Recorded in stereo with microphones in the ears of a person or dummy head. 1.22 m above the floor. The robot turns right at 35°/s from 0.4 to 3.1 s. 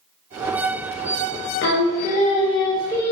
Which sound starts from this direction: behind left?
Singing, at 1.6 s.